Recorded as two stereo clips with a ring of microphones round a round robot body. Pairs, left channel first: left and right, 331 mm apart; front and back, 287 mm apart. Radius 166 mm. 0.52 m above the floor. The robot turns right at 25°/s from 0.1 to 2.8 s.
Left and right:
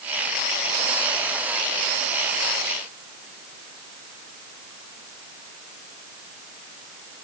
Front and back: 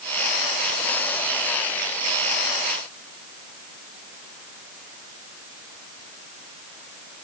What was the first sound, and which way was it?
Only background noise.